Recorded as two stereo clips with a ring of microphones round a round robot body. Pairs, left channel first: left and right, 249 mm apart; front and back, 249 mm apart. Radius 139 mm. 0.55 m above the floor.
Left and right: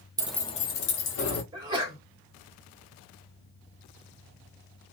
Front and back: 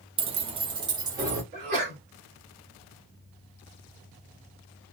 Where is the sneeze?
155° right, 1.7 m.